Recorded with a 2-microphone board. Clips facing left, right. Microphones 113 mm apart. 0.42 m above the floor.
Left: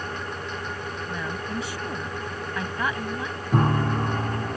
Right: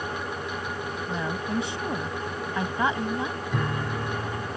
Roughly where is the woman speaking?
Right.